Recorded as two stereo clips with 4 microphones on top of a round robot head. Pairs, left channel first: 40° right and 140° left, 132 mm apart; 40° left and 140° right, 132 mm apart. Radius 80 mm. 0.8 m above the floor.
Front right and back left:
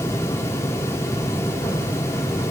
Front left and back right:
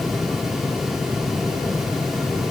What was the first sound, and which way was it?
Only background noise.